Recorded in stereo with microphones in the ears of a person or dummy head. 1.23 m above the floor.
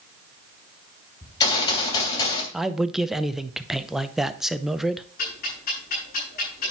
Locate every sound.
1.2 s a gunshot: 20° left (ahead or behind), 2.5 m
2.5 s a man speaking: centre (ahead or behind), 0.7 m
5.2 s ticking: 50° left (ahead or behind), 5.5 m